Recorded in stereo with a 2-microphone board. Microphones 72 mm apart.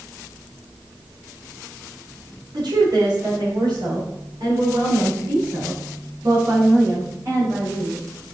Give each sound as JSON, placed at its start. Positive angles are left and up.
{"t": 2.5, "sound": "a woman speaking", "side_deg": -80, "distance_m": 3.5}